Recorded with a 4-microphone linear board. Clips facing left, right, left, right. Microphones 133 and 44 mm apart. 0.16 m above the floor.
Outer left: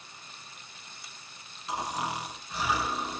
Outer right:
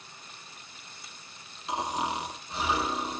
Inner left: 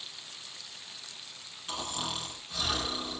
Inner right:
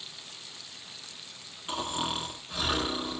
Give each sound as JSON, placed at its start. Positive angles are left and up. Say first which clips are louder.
{"t": 1.7, "sound": "snoring", "louder": "outer right 2 dB, inner right 4 dB", "side_deg": -25, "distance_m": 0.9}